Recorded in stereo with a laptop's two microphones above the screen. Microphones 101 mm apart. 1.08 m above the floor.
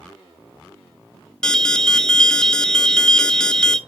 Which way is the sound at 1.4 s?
5° left (ahead or behind).